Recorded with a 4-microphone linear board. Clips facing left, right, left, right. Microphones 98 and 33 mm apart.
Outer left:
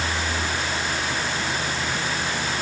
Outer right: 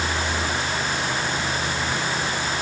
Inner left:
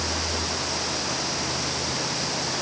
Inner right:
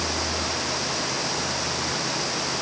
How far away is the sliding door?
I don't hear a sliding door.